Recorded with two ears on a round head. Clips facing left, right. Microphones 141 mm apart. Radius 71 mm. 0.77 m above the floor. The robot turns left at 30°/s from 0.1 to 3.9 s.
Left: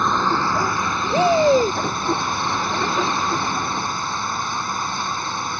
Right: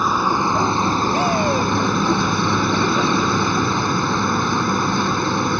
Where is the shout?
70° left (ahead or behind); by 1.8 s 85° left.